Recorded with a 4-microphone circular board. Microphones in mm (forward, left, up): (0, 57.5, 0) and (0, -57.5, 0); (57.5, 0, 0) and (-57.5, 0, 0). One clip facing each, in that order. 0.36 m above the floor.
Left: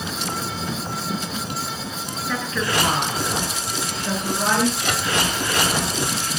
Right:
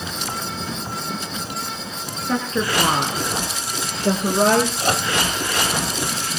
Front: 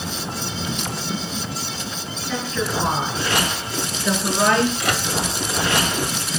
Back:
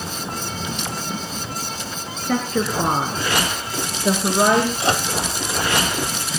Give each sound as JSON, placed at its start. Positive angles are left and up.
{"t": 2.3, "sound": "a woman speaking", "azimuth_deg": -150, "distance_m": 4.0}
{"t": 4.8, "sound": "a microwave", "azimuth_deg": -130, "distance_m": 1.4}